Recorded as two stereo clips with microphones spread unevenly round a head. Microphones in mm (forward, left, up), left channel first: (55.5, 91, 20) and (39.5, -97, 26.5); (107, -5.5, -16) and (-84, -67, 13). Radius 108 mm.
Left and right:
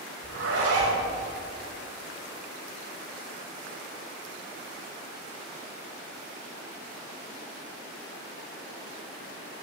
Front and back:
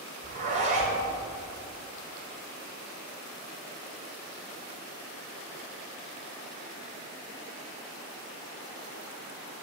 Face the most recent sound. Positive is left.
turn(degrees=-110)